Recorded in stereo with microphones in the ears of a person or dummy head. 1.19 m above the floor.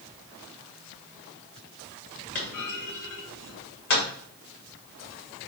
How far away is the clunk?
About 1.5 m.